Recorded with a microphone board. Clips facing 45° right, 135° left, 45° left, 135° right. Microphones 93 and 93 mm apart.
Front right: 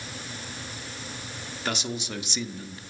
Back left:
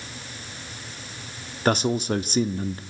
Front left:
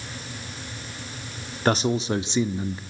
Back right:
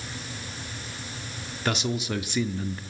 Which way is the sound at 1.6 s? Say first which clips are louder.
Back left 10 dB, front left 6 dB; 95° left.